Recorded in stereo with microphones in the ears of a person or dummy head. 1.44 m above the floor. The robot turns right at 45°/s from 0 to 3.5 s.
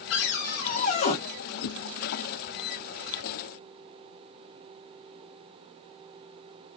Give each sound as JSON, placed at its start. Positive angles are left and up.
{"t": 0.1, "sound": "a cupboard door", "azimuth_deg": 95, "distance_m": 1.0}
{"t": 1.6, "sound": "a whoosh", "side_deg": 60, "distance_m": 0.5}